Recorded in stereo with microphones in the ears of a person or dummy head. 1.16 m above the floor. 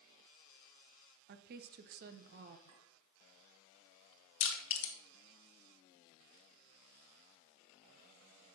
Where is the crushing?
65° left (ahead or behind), 1.5 m.